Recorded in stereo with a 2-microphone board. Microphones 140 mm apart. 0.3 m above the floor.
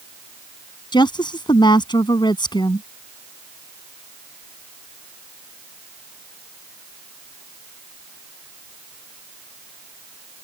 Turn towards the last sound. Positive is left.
turn(degrees=35)  # may be behind; listen again after turning